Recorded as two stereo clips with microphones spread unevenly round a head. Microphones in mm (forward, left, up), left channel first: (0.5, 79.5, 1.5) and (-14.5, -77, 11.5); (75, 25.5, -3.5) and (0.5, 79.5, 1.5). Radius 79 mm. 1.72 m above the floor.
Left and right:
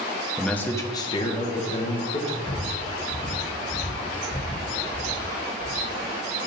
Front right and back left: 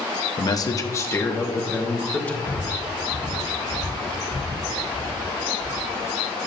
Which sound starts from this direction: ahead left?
Breathing, at 2.4 s.